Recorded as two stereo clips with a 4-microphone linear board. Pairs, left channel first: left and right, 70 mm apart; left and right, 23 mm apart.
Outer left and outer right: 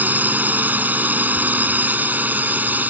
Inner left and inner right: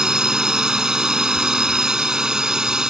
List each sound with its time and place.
0.0 s a drone: 25° right (ahead or behind)